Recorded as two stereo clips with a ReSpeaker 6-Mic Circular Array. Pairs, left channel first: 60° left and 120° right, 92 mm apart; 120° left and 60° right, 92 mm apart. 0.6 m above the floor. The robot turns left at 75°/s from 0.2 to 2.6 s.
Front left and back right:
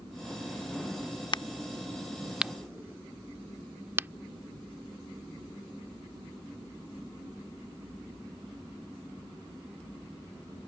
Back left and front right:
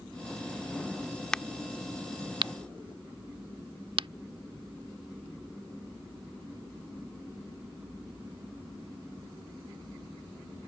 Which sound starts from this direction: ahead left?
A crack, at 1.3 s.